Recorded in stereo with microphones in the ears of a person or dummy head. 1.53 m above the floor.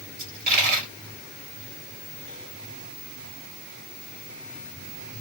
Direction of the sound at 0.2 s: 40° right (ahead or behind).